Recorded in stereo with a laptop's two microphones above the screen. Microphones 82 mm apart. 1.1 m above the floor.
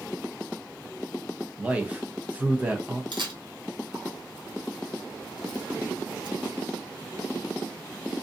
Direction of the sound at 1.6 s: 20° right (ahead or behind).